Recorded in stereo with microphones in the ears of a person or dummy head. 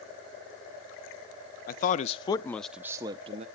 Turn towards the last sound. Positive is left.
turn(degrees=-35)  # may be behind; listen again after turning